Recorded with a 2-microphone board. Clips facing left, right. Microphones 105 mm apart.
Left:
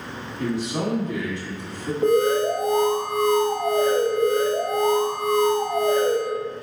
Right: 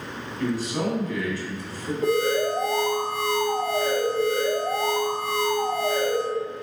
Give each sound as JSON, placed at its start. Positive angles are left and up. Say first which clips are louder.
{"t": 0.4, "sound": "a man speaking", "louder": "left 1 dB", "side_deg": 25, "distance_m": 2.0}
{"t": 2.0, "sound": "an alarm", "louder": "left 4 dB", "side_deg": 25, "distance_m": 1.3}